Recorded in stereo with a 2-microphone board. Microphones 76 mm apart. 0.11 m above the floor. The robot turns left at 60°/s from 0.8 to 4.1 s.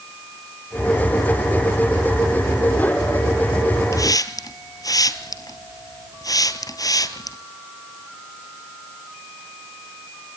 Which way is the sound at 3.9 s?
45° left (ahead or behind).